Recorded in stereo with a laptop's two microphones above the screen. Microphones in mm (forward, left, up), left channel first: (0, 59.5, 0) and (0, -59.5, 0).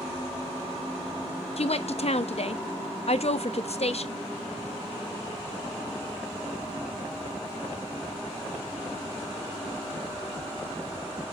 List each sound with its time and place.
1.6 s a woman speaking: 60° left (ahead or behind), 0.9 m